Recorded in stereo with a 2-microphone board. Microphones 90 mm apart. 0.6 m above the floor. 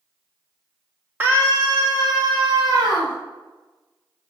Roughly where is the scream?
Right.